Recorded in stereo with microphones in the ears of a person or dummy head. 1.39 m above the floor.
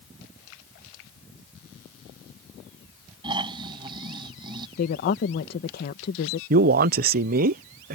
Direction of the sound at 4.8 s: 50° left (ahead or behind).